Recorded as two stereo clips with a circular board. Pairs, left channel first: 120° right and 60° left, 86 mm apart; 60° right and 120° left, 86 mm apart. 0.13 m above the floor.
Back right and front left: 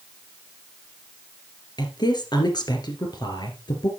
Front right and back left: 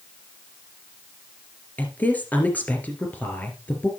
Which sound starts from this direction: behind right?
A woman speaking, at 1.8 s.